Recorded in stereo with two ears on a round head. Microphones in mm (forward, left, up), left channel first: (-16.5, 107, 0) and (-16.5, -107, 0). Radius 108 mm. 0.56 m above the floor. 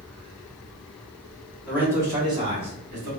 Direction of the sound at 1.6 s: 5° right (ahead or behind).